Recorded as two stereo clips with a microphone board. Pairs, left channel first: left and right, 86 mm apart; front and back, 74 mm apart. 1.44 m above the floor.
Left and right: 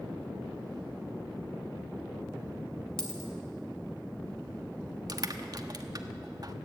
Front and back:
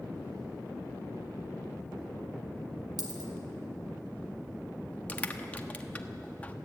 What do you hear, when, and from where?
3.0 s a dropped coin: 170° left, 3 m
5.1 s crushing: 65° right, 1.2 m